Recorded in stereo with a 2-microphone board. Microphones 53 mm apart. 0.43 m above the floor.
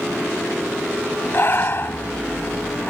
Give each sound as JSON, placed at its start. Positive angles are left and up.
{"t": 1.3, "sound": "breathing", "side_deg": 50}